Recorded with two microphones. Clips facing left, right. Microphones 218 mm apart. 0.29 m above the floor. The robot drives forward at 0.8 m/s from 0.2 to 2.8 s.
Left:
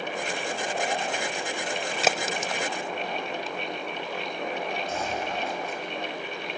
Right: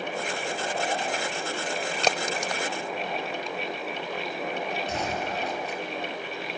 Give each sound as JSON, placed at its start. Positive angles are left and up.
{"t": 2.0, "sound": "a crack", "side_deg": 5, "distance_m": 0.7}
{"t": 4.9, "sound": "a gunshot", "side_deg": -75, "distance_m": 4.5}